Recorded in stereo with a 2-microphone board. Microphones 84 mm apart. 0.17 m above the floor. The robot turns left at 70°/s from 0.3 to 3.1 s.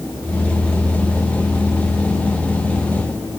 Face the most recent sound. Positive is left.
No sound to turn to.